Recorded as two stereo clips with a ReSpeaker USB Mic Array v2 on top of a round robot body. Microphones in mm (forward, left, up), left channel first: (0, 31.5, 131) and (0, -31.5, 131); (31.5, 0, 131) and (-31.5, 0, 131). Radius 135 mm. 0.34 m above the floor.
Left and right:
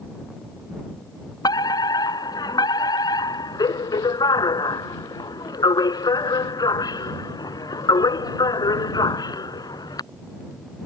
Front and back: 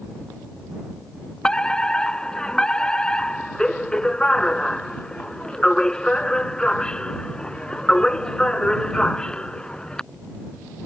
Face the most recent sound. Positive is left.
turn(degrees=80)